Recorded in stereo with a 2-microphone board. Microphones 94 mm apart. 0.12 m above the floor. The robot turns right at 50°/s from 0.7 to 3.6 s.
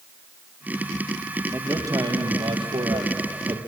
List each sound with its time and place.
1.5 s a man speaking: 155° right, 3 m; by 3.6 s 50° right, 3 m